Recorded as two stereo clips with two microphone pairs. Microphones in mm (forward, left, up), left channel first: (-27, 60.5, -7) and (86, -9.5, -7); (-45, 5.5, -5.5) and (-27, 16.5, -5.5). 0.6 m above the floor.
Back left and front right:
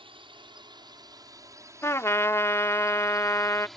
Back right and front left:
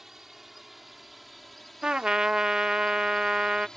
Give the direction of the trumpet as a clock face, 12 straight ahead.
9 o'clock.